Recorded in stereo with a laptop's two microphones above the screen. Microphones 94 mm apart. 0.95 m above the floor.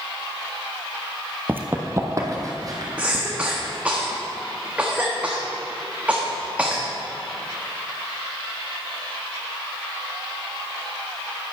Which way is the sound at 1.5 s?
20° right (ahead or behind).